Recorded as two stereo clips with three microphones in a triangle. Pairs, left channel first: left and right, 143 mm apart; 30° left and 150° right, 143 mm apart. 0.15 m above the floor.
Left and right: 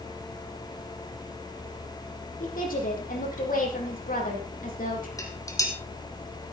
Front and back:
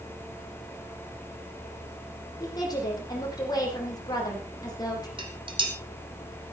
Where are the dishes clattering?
155° left, 4 m.